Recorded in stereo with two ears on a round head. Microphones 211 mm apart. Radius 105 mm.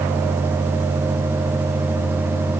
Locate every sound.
Only background noise.